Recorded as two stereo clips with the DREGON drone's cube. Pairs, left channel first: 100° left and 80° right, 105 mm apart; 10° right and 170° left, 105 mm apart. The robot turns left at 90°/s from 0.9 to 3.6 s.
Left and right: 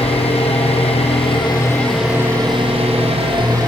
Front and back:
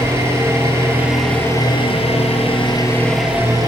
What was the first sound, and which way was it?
An engine running, 105° left.